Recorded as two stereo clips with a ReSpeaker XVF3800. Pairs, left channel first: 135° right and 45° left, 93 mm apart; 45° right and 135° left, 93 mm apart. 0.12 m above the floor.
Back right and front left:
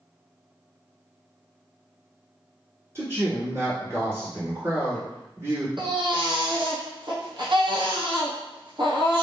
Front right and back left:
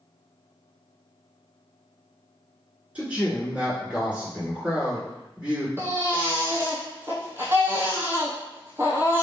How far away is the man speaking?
About 2.0 m.